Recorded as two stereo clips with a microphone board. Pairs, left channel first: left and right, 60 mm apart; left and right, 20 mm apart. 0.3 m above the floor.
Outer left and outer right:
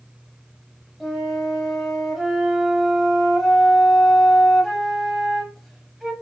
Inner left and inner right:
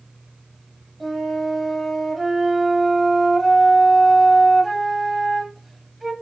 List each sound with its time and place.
1.0 s a flute: centre (ahead or behind), 1.2 m